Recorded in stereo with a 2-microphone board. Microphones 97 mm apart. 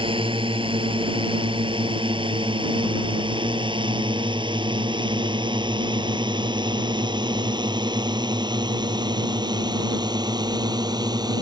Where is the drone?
75° right (ahead or behind); by 11.4 s 50° right (ahead or behind).